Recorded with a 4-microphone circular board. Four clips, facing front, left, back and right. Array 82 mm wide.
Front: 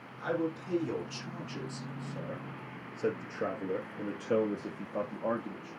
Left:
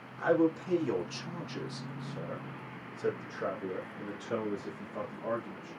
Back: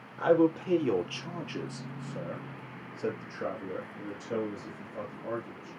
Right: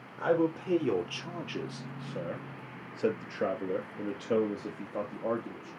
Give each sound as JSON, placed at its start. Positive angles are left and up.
{"t": 0.2, "sound": "a man speaking", "azimuth_deg": -150, "distance_m": 4.0}